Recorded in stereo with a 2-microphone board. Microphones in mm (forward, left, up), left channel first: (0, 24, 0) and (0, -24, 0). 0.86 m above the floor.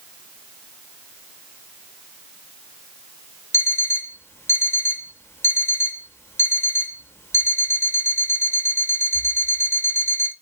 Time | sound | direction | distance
3.5 | an alarm clock | 60° left (ahead or behind) | 0.6 m